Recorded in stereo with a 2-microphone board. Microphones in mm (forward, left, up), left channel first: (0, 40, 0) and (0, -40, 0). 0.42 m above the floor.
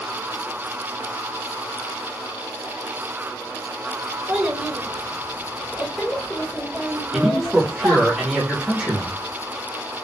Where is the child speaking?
15° right (ahead or behind), 0.9 m; by 8.1 s 10° left (ahead or behind), 1.7 m.